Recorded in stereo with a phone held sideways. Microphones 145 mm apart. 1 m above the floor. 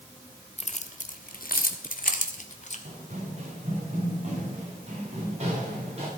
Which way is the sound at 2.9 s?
55° right (ahead or behind).